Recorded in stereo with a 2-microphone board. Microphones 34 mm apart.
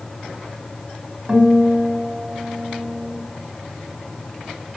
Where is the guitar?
30° right (ahead or behind), 2.5 m.